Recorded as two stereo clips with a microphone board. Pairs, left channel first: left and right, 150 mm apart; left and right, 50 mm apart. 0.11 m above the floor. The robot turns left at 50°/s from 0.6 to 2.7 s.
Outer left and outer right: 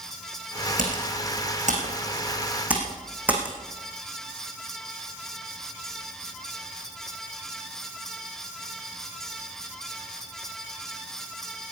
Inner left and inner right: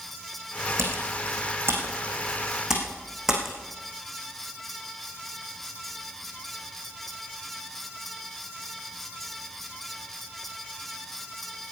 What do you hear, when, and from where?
0.8 s typing on a keyboard: 70° right (ahead or behind), 4 m; by 3.5 s 10° right (ahead or behind), 4 m